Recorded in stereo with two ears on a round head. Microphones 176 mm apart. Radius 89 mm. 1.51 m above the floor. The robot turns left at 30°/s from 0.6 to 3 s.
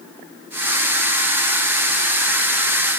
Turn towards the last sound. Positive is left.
No sound to turn to.